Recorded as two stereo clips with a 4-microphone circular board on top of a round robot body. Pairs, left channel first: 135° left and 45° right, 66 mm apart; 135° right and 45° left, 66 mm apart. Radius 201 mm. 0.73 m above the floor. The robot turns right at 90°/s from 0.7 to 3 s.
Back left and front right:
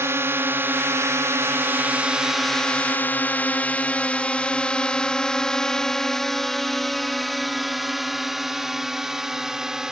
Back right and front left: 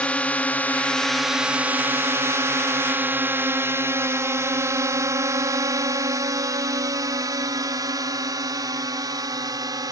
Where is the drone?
70° right; by 9.9 s 35° left.